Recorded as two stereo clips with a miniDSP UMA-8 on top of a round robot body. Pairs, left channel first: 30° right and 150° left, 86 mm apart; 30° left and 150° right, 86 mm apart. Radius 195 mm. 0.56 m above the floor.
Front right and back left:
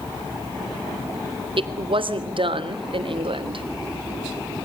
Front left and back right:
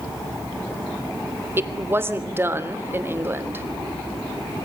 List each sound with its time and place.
1.6 s a woman speaking: 145° left, 3 m